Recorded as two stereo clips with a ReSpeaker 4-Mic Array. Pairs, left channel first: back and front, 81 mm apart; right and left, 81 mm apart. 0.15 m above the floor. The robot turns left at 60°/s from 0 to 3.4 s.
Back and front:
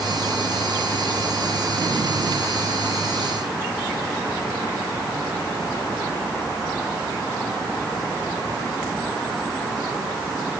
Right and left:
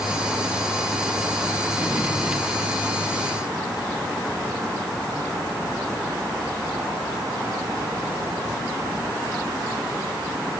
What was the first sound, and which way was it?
Only background noise.